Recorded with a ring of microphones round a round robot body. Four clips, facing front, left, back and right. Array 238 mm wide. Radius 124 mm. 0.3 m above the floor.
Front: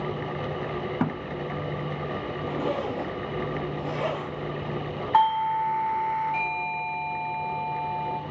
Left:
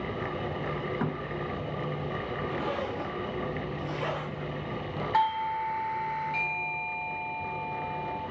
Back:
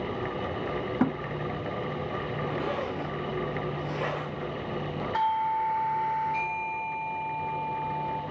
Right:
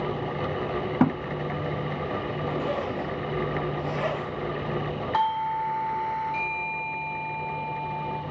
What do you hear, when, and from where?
1.0 s a thud: 85° right, 1.1 m
2.5 s a zipper: 35° right, 6.5 m
5.1 s a doorbell: 15° left, 3 m